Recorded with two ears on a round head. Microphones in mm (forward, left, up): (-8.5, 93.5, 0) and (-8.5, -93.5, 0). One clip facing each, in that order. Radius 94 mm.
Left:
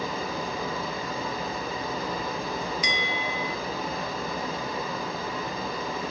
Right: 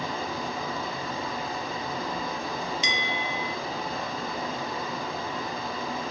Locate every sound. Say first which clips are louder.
0.0 s running water: left 1 dB; centre (ahead or behind), 7 m
2.8 s a bell: left 1 dB; 20° right (ahead or behind), 0.9 m